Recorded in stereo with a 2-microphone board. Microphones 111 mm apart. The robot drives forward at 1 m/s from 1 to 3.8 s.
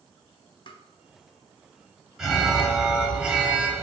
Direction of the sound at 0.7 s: 45° left (ahead or behind).